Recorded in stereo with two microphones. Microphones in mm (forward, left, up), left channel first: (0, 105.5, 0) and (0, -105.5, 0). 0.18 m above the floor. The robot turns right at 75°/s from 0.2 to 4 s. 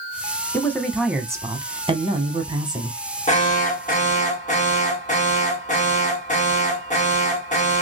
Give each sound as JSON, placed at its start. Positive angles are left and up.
{"t": 0.5, "sound": "a man speaking", "side_deg": 10, "distance_m": 1.0}
{"t": 3.3, "sound": "an alarm", "azimuth_deg": 60, "distance_m": 1.8}